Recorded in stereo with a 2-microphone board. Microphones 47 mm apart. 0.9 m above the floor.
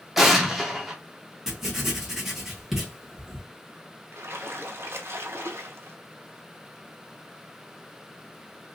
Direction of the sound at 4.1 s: 65° right (ahead or behind).